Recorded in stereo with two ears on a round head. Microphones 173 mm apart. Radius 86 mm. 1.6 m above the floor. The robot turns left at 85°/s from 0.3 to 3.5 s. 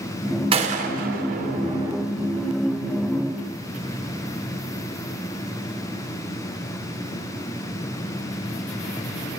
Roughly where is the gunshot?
Right.